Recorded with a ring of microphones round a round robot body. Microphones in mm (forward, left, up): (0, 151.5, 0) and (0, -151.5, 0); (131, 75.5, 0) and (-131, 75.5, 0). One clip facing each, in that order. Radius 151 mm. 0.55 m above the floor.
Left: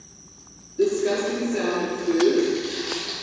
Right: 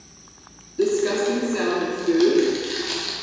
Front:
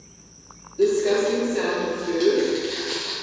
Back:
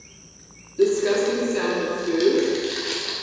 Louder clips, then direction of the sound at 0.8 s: Right 1 dB, even; 145° right.